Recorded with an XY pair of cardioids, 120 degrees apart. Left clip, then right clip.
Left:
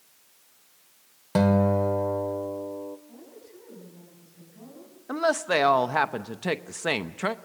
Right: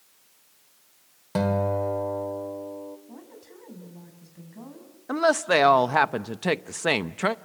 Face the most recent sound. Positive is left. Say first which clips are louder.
# right 3 dB
turn(degrees=-20)